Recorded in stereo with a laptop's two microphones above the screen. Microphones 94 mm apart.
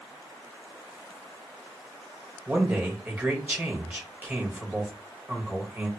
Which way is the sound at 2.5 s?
20° right (ahead or behind).